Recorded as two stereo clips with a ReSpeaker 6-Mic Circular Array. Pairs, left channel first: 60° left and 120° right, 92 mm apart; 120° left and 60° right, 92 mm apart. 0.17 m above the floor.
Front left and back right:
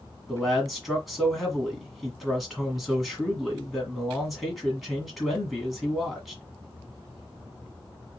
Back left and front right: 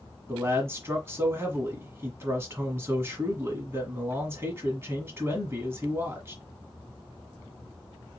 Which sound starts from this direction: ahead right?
A man speaking, at 0.3 s.